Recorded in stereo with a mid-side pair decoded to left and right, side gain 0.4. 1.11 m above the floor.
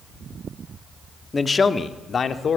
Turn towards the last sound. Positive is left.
turn(degrees=50)